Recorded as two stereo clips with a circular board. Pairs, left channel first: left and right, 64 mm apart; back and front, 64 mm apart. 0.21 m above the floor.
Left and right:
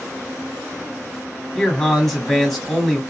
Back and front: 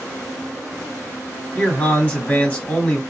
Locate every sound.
1.6 s a man speaking: 175° left, 1.4 m